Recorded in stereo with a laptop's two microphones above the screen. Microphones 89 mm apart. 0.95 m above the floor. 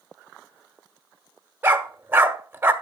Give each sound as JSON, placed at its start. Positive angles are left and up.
{"t": 1.6, "sound": "a dog barking", "side_deg": -25, "distance_m": 1.5}